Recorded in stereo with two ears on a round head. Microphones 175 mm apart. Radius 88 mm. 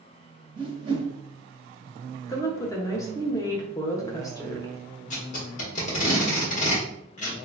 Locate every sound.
0.6 s a whoosh: 25° right (ahead or behind), 0.8 m
2.3 s a woman speaking: 15° left (ahead or behind), 0.8 m
5.1 s tape being pulled: 40° left (ahead or behind), 1.5 m